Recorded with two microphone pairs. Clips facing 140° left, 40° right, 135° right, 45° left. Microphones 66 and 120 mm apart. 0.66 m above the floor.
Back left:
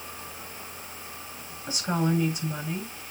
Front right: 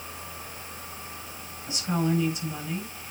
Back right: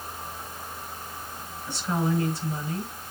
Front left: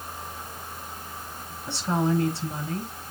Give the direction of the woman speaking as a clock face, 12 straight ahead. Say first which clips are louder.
Even, front left 2 dB; 9 o'clock.